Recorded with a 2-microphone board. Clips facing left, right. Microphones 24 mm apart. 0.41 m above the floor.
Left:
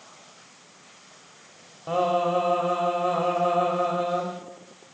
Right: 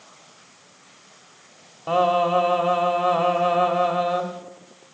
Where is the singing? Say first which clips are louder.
Right 4 dB; 30° right (ahead or behind), 1.6 m.